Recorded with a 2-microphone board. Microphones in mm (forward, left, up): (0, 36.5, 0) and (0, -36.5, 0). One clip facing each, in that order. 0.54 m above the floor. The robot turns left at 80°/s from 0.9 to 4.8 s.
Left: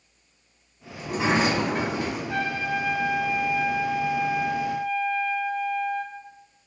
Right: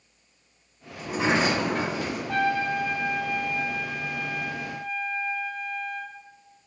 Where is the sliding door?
155° right, 1.0 m; by 2.2 s 110° left, 1.0 m.